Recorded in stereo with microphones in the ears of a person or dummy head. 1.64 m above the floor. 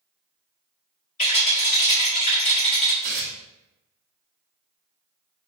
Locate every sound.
1.2 s a rattle: 35° left (ahead or behind), 2 m
3.0 s tearing paper: 40° right (ahead or behind), 1.1 m